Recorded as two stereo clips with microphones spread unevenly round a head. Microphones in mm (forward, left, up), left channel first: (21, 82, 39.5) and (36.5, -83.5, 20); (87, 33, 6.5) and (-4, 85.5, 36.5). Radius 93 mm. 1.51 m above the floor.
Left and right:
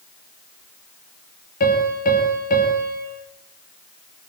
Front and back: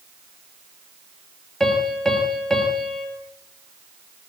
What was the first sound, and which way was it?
A piano, 60° left.